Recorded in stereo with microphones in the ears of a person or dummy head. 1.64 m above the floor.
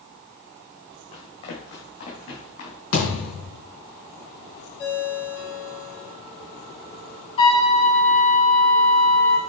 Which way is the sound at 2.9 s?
70° left (ahead or behind).